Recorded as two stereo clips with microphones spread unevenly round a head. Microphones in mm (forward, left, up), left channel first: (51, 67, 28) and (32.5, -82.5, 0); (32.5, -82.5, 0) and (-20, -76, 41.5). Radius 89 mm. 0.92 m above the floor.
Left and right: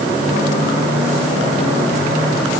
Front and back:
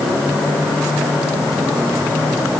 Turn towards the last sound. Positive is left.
No sound to turn to.